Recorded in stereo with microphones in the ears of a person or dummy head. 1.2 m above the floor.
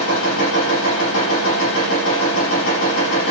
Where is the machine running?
80° left, 8.5 m.